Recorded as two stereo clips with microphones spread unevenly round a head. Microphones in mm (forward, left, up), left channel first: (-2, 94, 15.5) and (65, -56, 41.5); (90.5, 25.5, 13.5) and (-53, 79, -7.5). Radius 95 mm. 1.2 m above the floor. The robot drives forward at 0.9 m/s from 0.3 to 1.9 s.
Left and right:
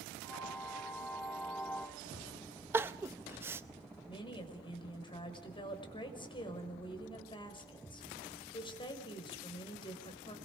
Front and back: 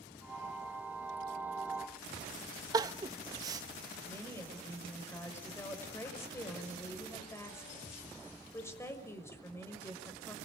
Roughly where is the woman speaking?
Ahead left.